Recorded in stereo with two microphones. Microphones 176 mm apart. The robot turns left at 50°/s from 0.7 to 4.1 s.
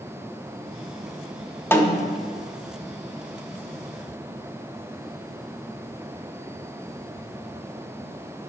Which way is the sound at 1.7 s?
10° left (ahead or behind).